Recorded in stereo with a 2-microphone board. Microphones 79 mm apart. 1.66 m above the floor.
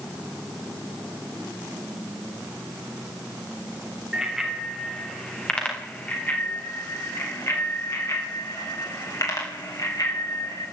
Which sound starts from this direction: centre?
A bicycle bell, at 4.1 s.